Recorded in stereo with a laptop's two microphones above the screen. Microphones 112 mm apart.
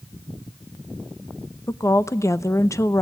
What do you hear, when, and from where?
1.7 s a woman speaking: 30° left (ahead or behind), 0.6 m